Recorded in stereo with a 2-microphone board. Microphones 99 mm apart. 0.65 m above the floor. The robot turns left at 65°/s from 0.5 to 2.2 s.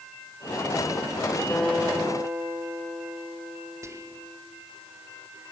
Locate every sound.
1.5 s a guitar: 15° left, 4 m; by 4.4 s 30° right, 4 m
3.8 s whispering: 30° right (ahead or behind), 1.1 m